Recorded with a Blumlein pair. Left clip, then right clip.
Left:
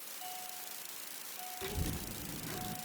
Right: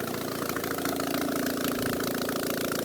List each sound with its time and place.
1.6 s a child speaking: 40° left, 3.5 m; by 2.8 s 30° left, 2.5 m